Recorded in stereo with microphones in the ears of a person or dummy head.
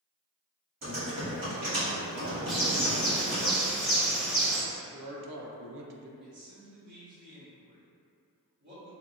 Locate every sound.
0.8 s typing on a keyboard: 40° right (ahead or behind), 1.7 m
2.5 s a bird: 5° right (ahead or behind), 0.5 m
4.7 s a man speaking: 70° right (ahead or behind), 0.6 m
6.2 s a man speaking: 45° right (ahead or behind), 1.7 m